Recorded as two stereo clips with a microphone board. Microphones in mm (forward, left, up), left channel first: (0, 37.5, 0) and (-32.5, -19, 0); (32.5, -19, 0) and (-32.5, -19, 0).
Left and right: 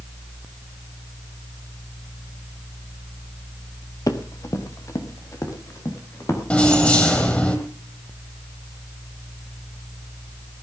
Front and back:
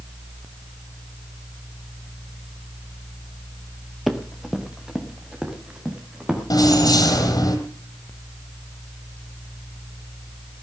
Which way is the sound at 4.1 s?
95° left.